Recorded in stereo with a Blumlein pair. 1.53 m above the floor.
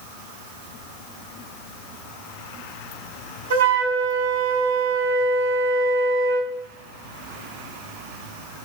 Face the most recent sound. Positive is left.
turn(degrees=-65)